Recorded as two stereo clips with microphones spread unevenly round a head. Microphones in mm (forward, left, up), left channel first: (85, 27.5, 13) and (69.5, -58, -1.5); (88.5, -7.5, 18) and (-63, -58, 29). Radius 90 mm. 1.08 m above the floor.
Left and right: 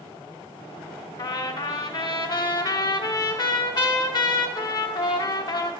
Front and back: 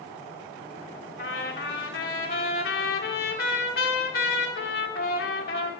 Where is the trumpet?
60° left, 0.9 m.